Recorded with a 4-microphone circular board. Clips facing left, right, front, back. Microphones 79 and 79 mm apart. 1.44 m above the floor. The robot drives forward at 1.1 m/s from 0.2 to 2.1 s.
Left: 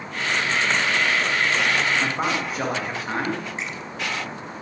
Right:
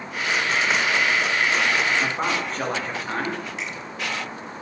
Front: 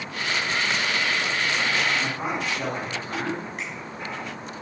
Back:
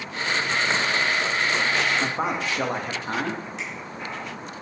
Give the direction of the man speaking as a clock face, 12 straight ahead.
6 o'clock.